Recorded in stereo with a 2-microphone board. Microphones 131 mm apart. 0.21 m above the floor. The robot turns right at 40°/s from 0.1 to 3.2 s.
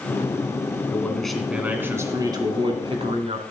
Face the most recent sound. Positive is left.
turn(degrees=-105)